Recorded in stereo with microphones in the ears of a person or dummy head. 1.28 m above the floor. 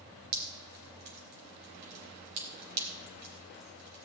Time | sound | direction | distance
0.3 | dripping | 85° right | 4 m